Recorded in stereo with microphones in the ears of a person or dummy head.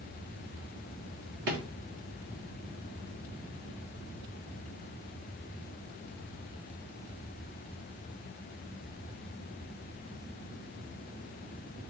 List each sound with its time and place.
1.5 s a drawer: 35° right (ahead or behind), 0.7 m